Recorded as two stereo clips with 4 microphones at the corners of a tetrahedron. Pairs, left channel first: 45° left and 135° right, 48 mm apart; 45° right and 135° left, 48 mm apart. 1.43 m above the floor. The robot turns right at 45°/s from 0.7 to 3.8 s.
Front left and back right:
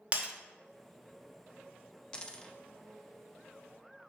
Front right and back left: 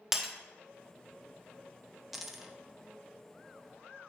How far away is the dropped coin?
About 0.7 m.